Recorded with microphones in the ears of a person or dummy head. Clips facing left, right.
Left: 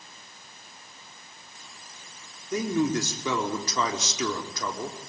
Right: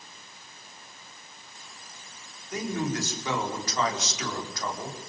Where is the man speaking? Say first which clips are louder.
Left 5 dB; 85° left, 4.5 m.